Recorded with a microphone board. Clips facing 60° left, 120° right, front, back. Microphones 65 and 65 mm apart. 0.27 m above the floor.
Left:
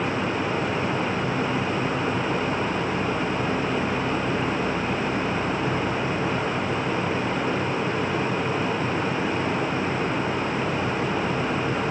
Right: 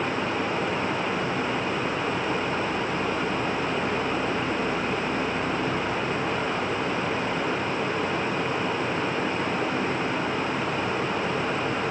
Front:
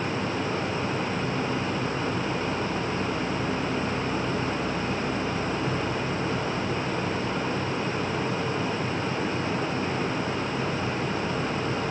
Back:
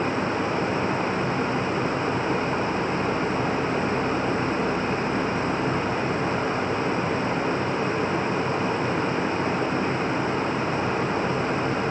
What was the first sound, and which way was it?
Only background noise.